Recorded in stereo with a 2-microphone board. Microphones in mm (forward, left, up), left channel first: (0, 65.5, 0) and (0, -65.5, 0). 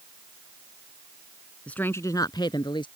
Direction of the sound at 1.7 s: 10° left (ahead or behind).